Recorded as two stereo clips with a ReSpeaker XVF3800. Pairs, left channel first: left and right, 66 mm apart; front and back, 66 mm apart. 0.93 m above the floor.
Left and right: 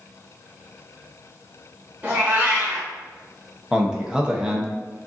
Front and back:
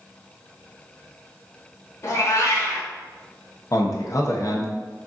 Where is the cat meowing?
30° right, 1.2 m.